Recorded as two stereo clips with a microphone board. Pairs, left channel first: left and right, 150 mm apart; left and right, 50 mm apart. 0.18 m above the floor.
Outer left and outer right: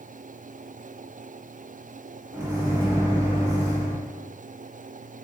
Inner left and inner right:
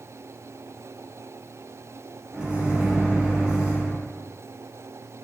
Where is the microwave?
20° right (ahead or behind), 1.2 m.